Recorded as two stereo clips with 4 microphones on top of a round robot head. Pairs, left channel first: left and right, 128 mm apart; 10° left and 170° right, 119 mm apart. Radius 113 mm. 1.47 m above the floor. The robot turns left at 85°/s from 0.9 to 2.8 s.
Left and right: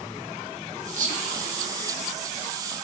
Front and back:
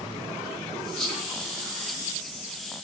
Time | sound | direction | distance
1.0 | whispering | 75° right | 2 m